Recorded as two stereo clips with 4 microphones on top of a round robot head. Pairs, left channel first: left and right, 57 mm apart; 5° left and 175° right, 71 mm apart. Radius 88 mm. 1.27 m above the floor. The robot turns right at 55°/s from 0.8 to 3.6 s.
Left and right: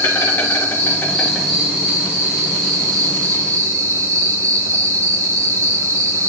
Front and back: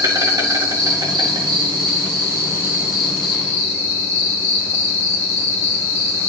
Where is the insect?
145° left, 2 m; by 6.3 s 60° right, 2 m.